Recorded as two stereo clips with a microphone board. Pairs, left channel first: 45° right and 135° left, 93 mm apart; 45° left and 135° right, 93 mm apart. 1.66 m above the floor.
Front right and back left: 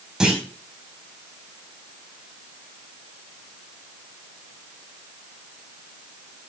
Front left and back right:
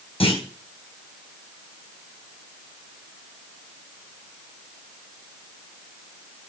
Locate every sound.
0.2 s a clunk: 50° left, 4.5 m